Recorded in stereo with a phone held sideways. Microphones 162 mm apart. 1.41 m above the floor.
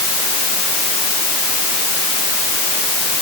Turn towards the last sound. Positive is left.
No sound to turn to.